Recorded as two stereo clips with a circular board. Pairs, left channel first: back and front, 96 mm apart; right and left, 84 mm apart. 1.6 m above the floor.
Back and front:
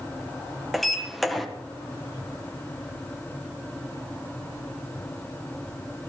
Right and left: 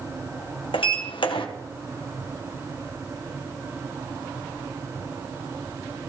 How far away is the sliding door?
About 1.6 m.